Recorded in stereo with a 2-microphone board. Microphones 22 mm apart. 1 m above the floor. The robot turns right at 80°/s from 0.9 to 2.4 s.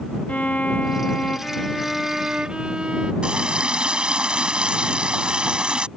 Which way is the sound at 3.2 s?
40° right (ahead or behind).